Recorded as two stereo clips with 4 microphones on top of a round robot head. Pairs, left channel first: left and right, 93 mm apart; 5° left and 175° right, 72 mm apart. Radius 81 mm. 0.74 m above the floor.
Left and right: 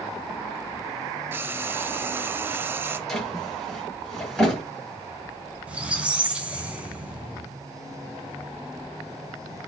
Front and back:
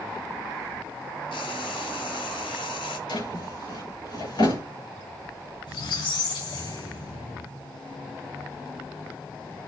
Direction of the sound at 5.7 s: 10° right.